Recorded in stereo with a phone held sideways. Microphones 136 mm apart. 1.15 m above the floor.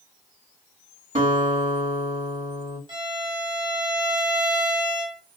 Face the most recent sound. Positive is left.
turn(degrees=-35)  # may be behind; listen again after turning